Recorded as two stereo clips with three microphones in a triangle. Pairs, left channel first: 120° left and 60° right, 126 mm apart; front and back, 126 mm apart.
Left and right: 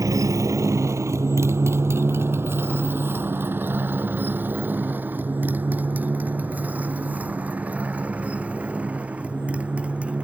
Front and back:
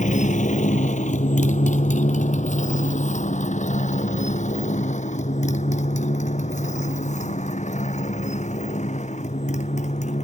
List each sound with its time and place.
0.0 s a motorcycle: 5° left; by 10.2 s 20° left